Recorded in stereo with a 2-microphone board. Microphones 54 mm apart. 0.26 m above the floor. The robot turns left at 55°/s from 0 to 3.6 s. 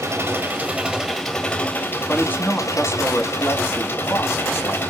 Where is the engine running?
115° right, 2 m; by 4.9 s 50° left, 2 m.